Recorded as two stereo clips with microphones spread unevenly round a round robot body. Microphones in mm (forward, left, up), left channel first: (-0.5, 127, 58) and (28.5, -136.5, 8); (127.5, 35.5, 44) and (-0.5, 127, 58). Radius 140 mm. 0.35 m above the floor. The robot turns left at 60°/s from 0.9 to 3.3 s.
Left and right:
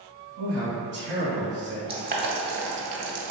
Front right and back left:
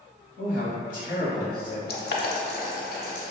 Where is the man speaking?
45° right, 1.9 m; by 1.8 s 100° right, 1.9 m.